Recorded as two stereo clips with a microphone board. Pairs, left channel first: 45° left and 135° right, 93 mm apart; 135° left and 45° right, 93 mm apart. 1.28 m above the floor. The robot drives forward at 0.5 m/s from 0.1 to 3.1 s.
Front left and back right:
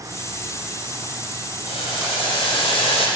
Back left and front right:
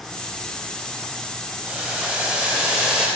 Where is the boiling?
35° left, 3.5 m; by 3.1 s 40° left, 3 m.